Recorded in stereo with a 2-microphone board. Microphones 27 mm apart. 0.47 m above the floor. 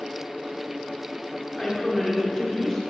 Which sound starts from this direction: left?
A woman speaking, at 1.6 s.